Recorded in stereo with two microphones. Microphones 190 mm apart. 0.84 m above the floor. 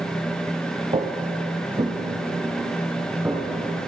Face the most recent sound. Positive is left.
turn(degrees=-10)  # may be behind; listen again after turning